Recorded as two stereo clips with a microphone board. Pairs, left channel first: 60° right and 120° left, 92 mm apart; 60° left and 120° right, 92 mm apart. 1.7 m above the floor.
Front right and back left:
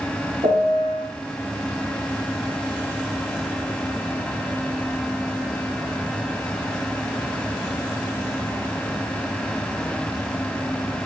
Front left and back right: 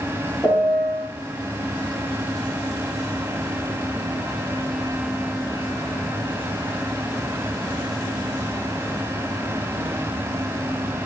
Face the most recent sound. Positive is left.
turn(degrees=135)